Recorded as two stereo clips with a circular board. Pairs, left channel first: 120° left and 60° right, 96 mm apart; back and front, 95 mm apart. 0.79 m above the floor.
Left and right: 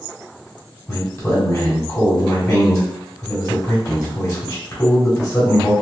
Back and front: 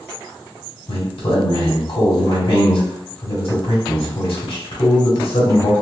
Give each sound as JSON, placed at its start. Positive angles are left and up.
{"t": 0.9, "sound": "a man speaking", "azimuth_deg": 175, "distance_m": 1.7}